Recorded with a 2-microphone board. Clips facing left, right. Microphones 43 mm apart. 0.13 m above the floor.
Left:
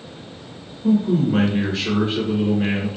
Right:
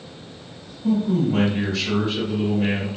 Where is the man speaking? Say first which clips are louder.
Left 2 dB; 30° left (ahead or behind), 1.4 m.